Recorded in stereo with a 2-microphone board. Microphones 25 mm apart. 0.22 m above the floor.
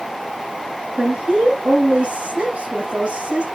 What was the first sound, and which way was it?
A woman speaking, 50° right (ahead or behind).